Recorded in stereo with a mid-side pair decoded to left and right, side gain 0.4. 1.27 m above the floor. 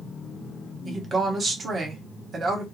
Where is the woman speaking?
50° right, 1.1 m.